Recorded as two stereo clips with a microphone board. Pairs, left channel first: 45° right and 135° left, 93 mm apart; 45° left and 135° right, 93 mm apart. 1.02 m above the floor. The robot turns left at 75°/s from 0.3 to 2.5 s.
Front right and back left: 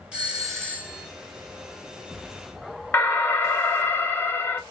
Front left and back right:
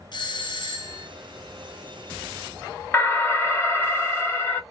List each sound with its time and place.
0.1 s a doorbell: 60° left, 0.9 m; by 1.1 s straight ahead, 0.9 m
2.9 s an alarm: 5° left, 0.8 m